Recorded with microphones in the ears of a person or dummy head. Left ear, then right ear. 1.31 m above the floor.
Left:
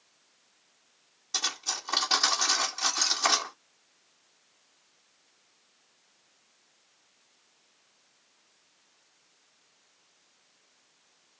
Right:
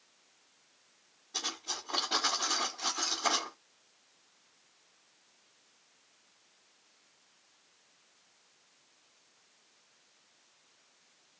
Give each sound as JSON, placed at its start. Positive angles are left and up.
{"t": 1.3, "sound": "cutlery clinking", "side_deg": 70, "distance_m": 2.0}